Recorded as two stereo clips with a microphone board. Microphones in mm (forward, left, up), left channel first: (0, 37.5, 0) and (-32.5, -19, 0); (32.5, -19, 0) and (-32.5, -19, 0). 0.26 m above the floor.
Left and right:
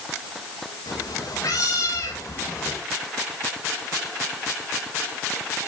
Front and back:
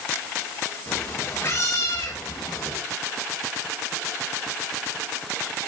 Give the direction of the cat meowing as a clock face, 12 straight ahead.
10 o'clock.